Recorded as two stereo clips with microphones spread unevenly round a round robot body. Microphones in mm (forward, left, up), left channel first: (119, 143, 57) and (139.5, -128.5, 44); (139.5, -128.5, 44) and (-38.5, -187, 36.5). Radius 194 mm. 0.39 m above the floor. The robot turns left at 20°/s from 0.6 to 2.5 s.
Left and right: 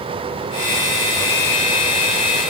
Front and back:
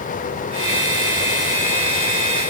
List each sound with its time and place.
Only background noise.